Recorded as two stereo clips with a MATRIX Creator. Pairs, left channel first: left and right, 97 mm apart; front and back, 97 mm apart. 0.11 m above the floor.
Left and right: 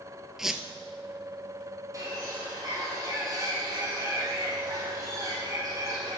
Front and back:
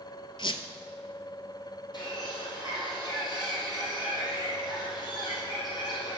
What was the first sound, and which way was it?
A squeak, 5° right.